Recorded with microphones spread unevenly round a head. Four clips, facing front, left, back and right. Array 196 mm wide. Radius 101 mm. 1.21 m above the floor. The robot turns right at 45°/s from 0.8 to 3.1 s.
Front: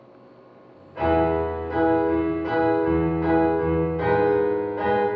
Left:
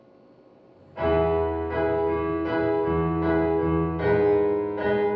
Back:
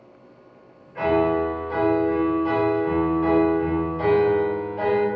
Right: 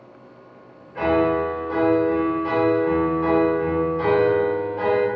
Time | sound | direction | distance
0.9 | a piano | 100° right | 1.3 m